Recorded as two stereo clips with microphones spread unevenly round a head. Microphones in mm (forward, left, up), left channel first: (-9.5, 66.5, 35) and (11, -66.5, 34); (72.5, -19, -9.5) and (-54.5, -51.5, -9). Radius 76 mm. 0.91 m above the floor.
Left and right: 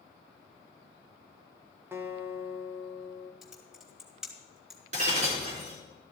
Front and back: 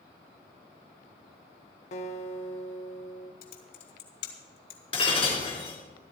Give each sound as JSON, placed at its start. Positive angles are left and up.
{"t": 1.9, "sound": "a guitar", "azimuth_deg": -10, "distance_m": 1.4}
{"t": 3.4, "sound": "typing on a keyboard", "azimuth_deg": 5, "distance_m": 2.5}
{"t": 4.9, "sound": "breaking glass", "azimuth_deg": -40, "distance_m": 4.5}